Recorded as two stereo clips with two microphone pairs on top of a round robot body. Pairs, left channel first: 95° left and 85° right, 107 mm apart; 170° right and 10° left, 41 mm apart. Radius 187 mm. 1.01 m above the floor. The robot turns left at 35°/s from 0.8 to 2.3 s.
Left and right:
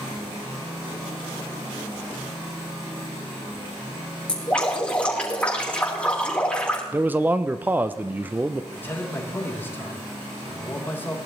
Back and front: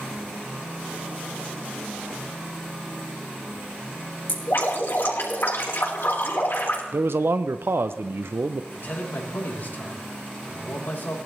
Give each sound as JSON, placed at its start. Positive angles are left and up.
{"t": 4.3, "sound": "dripping", "azimuth_deg": 175, "distance_m": 4.0}
{"t": 6.9, "sound": "a man speaking", "azimuth_deg": -10, "distance_m": 0.5}
{"t": 8.7, "sound": "a man speaking", "azimuth_deg": 165, "distance_m": 3.5}